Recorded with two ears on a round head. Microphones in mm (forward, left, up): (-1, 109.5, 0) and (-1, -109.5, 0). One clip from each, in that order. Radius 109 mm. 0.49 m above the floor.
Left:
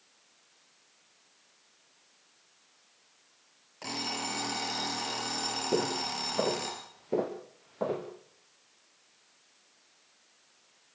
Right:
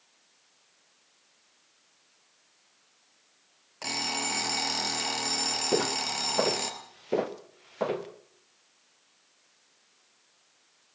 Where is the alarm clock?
30° right (ahead or behind), 4 m.